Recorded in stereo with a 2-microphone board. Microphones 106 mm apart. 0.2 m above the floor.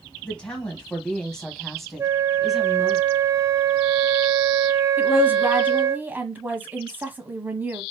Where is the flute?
30° right (ahead or behind), 0.5 m.